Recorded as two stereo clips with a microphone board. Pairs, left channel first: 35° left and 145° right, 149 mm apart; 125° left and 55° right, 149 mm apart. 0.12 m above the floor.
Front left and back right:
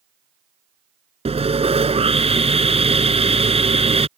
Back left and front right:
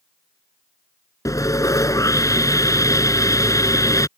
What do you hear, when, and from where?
1.2 s sawing: 175° right